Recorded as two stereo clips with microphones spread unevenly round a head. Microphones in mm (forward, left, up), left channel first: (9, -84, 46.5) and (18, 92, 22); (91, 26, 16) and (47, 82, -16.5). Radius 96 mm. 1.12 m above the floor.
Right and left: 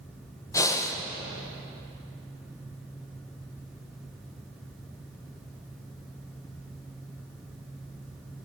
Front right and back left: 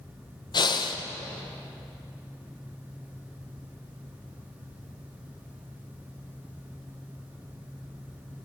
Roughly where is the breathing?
Ahead.